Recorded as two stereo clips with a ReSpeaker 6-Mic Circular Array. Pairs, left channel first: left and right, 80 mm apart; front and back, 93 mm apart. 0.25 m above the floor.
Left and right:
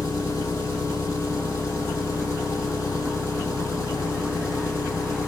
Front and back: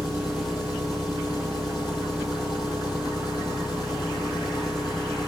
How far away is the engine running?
About 5 m.